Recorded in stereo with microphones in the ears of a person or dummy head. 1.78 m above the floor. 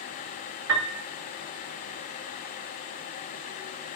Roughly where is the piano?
Right.